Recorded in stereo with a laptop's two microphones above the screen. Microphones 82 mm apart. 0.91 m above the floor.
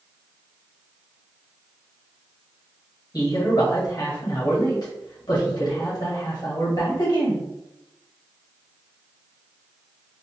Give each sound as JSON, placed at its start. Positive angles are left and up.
{"t": 3.1, "sound": "a man speaking", "side_deg": 55, "distance_m": 1.5}